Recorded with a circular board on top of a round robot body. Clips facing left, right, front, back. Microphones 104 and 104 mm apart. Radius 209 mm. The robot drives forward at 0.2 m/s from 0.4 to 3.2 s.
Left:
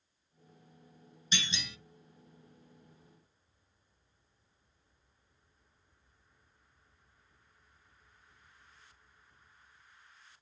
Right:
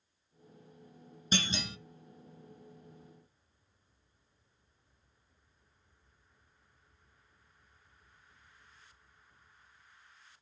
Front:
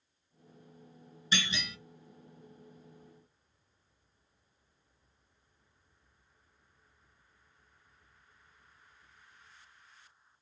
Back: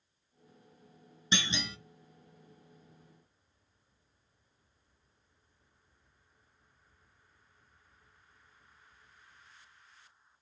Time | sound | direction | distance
1.3 | a clunk | 120° right | 0.8 m